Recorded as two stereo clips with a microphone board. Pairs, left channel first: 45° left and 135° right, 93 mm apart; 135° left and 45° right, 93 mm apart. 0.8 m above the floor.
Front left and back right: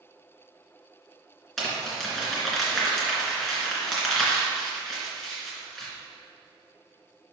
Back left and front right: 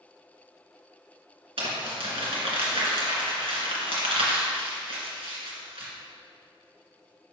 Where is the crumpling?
40° right, 2.5 m.